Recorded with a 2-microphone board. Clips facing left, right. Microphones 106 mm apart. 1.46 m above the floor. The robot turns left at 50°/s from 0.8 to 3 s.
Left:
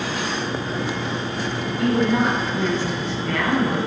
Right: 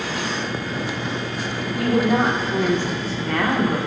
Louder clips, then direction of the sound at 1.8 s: Right 1 dB; 80° right.